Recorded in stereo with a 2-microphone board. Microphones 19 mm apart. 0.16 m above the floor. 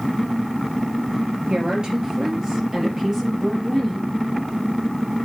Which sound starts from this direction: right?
A woman speaking, at 1.5 s.